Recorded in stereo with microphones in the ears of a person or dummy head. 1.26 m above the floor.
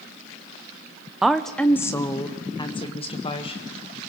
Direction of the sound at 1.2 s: 5° right (ahead or behind).